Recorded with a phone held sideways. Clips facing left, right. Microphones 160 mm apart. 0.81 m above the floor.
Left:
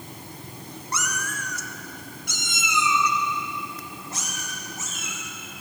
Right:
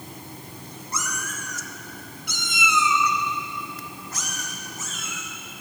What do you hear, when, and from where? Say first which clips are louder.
0.9 s a cat meowing: left 2 dB; 80° left, 0.8 m; by 5.2 s 25° left (ahead or behind), 3 m